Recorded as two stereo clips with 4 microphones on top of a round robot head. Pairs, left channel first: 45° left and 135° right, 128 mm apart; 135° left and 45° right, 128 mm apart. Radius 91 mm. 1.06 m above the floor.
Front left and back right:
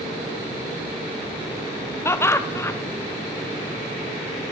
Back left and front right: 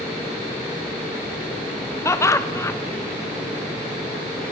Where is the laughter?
95° left, 0.8 m.